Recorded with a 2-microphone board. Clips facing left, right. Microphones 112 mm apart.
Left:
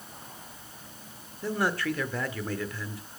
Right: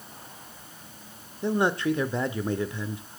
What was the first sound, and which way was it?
A man speaking, 20° right (ahead or behind).